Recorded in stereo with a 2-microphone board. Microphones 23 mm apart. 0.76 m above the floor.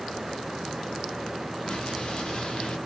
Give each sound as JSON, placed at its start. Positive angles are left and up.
{"t": 1.7, "sound": "an explosion", "side_deg": 40, "distance_m": 1.3}